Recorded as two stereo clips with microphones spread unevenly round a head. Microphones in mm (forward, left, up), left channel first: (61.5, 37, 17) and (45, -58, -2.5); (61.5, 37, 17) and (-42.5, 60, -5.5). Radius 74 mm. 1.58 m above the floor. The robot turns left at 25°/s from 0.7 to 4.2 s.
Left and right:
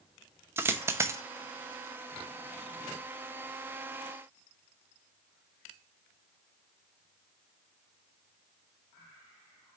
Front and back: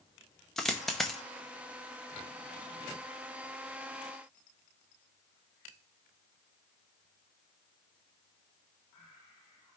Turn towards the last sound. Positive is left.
turn(degrees=-130)